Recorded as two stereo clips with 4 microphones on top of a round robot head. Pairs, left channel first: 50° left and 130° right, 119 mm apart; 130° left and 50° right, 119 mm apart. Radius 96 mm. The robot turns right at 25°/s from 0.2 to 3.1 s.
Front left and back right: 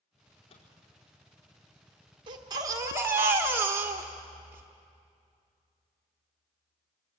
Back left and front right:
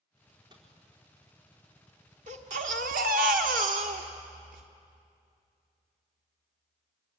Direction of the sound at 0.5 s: 5° left.